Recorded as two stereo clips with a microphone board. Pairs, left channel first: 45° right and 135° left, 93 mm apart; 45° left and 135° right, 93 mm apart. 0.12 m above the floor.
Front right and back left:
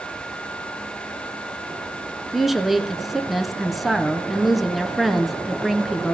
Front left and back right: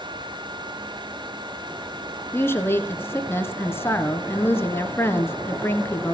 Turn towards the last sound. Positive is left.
turn(degrees=50)